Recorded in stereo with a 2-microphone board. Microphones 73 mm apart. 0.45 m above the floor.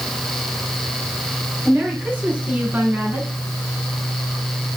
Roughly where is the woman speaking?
Centre.